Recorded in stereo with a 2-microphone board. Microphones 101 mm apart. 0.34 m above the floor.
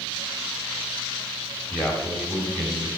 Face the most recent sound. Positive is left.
turn(degrees=15)  # may be behind; listen again after turning